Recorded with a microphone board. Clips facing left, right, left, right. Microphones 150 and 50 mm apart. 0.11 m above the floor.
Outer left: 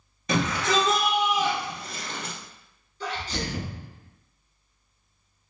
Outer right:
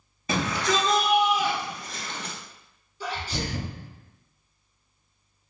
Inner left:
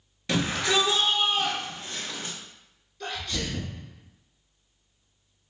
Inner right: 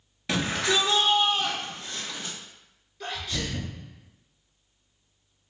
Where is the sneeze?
10° right (ahead or behind), 1.3 m.